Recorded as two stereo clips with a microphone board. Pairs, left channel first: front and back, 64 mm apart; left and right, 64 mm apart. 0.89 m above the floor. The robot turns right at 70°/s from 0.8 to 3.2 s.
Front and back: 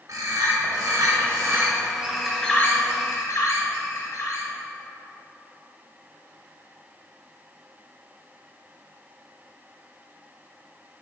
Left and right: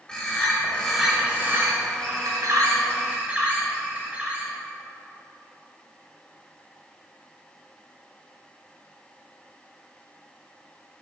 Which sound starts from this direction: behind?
A bird, at 0.1 s.